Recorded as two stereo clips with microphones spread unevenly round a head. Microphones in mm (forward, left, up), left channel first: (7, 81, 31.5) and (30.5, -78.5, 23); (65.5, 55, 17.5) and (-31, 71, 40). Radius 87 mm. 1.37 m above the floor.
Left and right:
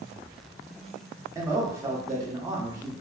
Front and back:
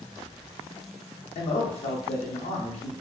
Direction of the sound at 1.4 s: 10° right.